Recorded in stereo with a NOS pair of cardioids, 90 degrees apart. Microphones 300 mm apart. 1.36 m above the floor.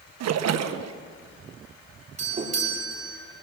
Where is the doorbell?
25° right, 5.5 m.